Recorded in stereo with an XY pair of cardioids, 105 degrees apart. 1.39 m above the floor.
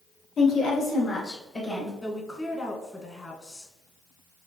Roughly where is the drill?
I don't hear a drill.